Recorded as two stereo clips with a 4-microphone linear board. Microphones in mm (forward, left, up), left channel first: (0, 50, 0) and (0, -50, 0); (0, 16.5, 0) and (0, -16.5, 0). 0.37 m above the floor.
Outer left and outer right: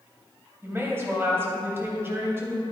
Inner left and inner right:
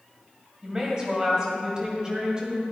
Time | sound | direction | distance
0.6 | a woman speaking | 25° right (ahead or behind) | 2.5 m